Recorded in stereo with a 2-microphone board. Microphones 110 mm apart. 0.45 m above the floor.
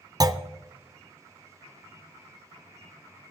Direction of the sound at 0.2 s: 35° right (ahead or behind).